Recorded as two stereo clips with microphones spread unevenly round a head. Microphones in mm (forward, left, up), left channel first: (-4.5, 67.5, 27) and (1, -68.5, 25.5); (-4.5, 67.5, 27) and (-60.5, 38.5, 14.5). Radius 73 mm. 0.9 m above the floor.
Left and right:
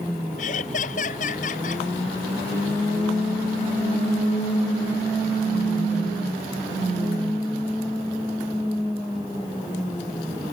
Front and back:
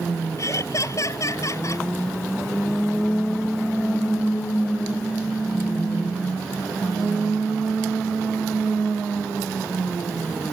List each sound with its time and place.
0.4 s laughter: 60° left